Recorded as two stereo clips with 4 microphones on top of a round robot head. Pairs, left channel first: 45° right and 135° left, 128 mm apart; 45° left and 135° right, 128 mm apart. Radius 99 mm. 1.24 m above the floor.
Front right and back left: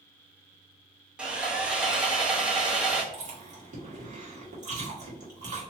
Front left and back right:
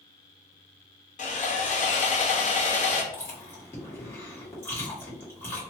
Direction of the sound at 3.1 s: 115° left.